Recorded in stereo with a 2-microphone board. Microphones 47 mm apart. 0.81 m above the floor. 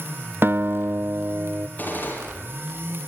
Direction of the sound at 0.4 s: 50° right (ahead or behind).